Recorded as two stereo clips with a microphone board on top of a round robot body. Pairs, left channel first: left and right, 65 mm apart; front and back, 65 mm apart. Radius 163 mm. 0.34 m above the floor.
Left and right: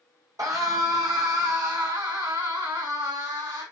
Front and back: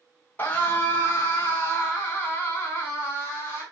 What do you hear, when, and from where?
0.4 s a scream: 60° right, 3.5 m; by 3.6 s 65° right, 6.5 m